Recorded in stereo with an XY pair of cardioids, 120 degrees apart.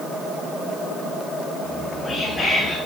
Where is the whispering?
25° left, 2 m.